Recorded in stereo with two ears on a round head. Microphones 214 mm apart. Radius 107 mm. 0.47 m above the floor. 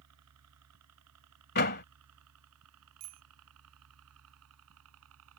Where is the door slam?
45° left (ahead or behind).